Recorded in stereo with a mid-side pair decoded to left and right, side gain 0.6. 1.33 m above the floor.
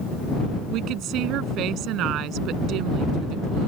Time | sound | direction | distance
0.7 | a woman speaking | 65° right | ?